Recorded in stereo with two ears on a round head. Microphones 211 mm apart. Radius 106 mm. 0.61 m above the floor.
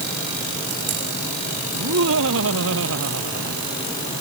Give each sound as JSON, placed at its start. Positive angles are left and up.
{"t": 1.7, "sound": "laughter", "side_deg": -65}